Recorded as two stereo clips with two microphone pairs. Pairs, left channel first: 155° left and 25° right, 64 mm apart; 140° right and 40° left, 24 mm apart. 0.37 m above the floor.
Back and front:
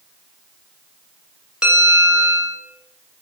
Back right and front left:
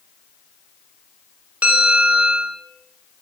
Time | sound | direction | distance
1.6 | a bell | 55° left | 1.2 m